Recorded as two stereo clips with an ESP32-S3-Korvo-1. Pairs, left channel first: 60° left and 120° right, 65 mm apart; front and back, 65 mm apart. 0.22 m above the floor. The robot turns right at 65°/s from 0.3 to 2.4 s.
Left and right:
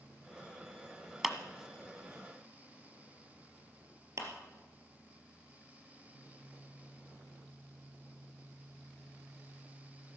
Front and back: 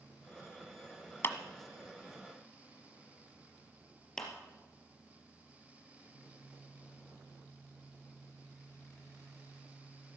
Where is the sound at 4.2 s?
80° right, 3 m.